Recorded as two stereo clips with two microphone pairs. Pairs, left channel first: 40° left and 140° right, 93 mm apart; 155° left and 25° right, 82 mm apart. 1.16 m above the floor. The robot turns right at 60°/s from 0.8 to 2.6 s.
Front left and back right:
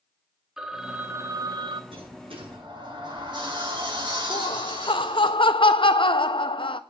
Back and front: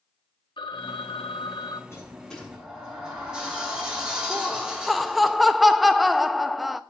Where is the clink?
I don't hear a clink.